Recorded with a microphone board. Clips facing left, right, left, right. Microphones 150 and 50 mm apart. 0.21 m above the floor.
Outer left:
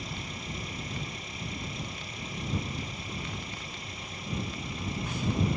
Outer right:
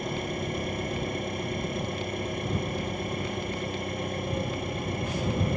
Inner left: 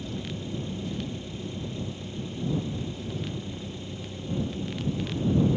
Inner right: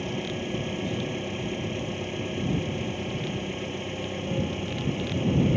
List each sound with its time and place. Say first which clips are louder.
0.0 s an engine running: outer right 9 dB, inner right 4 dB; 55° right (ahead or behind)